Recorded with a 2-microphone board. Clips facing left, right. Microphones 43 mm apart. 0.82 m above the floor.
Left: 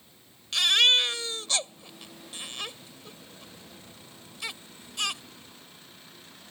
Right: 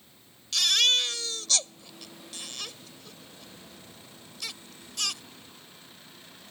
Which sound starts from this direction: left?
A baby crying, at 0.5 s.